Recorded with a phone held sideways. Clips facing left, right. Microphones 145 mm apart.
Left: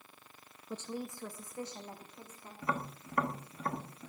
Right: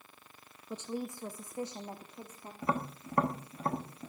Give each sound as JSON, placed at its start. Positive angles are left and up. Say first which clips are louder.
{"t": 0.7, "sound": "a woman speaking", "louder": "right 2 dB", "side_deg": -10, "distance_m": 0.6}
{"t": 2.6, "sound": "tapping", "louder": "right 3 dB", "side_deg": -30, "distance_m": 1.3}